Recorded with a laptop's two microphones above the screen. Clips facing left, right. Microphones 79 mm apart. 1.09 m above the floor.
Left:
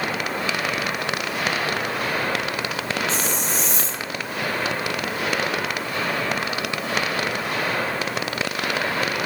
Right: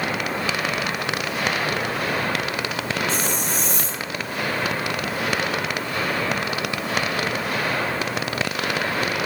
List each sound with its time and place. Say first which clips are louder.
3.1 s a hiss: even; 55° right (ahead or behind), 2 m